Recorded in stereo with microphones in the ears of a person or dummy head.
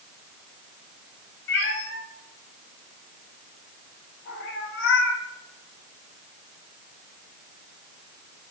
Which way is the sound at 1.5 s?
70° left (ahead or behind).